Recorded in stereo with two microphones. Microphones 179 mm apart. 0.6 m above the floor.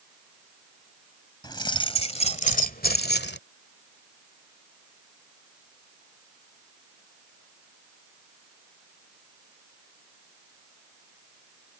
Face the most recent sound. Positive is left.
turn(degrees=75)  # may be behind; listen again after turning